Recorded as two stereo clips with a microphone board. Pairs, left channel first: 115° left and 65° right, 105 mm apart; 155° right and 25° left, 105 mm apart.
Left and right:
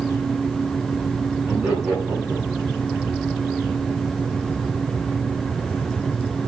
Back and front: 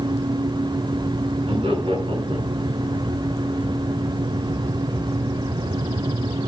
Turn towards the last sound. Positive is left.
turn(degrees=10)